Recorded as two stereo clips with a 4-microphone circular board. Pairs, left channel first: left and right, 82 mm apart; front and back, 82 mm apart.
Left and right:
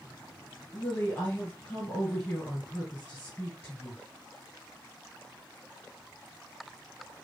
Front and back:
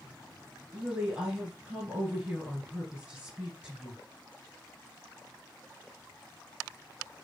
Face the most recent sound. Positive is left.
turn(degrees=130)